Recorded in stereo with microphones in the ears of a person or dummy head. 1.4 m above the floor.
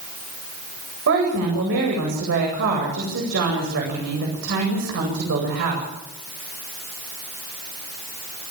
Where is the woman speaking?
70° right (ahead or behind), 8 m.